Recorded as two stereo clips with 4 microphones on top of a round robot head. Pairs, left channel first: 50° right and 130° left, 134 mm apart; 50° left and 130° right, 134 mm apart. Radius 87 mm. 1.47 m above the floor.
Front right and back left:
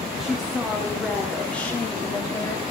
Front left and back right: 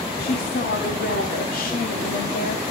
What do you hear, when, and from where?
0.2 s a woman speaking: 40° left, 4.5 m; by 2.6 s 20° left, 3.5 m